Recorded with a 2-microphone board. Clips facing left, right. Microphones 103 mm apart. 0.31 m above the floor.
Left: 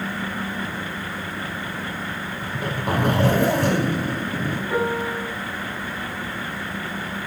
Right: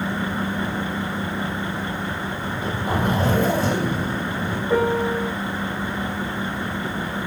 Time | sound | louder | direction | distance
2.4 | a zipper | left 1 dB | 75° left (ahead or behind) | 2.5 m
4.7 | a piano | right 5 dB | 25° right (ahead or behind) | 3.5 m